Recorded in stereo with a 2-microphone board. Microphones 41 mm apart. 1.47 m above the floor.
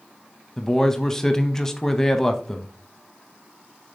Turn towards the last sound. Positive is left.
turn(degrees=10)  # may be behind; listen again after turning